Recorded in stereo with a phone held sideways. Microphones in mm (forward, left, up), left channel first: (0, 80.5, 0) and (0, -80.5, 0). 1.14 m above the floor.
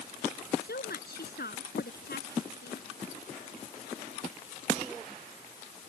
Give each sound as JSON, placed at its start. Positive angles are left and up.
{"t": 0.6, "sound": "a woman speaking", "side_deg": 80}